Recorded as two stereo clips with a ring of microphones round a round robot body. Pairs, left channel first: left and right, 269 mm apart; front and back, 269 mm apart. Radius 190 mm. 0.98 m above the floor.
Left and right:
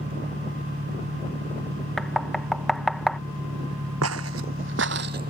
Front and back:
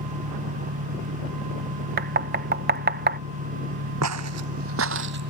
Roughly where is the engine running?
Behind.